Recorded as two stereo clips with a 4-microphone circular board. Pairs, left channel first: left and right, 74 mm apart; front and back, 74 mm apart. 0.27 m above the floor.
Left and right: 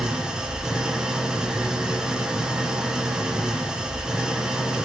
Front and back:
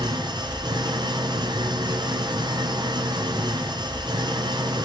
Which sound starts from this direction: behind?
An engine running, at 0.0 s.